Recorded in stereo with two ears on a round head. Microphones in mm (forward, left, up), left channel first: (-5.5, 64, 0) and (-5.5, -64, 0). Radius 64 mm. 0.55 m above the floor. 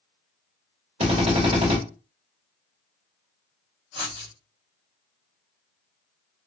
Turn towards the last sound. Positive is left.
turn(degrees=-45)  # may be behind; listen again after turning